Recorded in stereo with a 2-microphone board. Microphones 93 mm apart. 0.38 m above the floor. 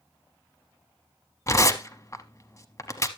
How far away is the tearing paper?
About 0.7 m.